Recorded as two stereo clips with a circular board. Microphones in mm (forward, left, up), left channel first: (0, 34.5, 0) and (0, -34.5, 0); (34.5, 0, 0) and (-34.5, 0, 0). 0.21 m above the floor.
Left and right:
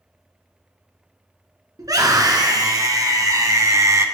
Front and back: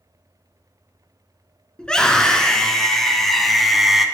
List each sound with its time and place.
1.8 s a scream: 75° right, 3 m; by 4.0 s 95° right, 1.8 m